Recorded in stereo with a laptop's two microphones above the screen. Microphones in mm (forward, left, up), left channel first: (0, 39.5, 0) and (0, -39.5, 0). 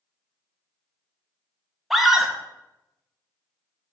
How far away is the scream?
About 0.7 m.